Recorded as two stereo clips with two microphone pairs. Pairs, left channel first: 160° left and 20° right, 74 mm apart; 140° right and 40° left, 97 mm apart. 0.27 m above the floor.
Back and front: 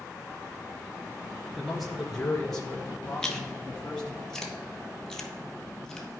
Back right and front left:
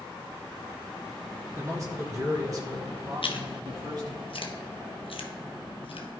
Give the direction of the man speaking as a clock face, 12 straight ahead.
10 o'clock.